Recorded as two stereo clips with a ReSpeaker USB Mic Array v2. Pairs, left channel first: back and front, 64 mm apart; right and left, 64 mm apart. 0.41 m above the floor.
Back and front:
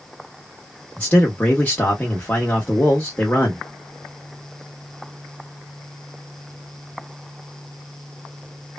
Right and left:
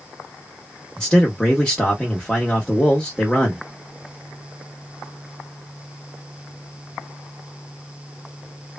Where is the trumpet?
I don't hear a trumpet.